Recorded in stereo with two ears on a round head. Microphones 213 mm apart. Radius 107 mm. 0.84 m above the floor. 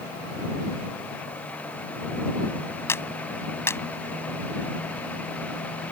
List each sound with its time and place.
2.9 s a clap: 10° left (ahead or behind)